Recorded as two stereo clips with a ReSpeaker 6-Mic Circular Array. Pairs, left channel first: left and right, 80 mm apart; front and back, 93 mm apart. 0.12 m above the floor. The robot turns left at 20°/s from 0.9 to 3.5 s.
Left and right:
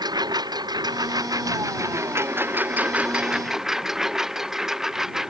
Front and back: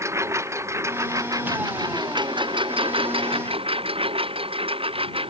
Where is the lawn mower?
120° right; by 5.3 s 175° right.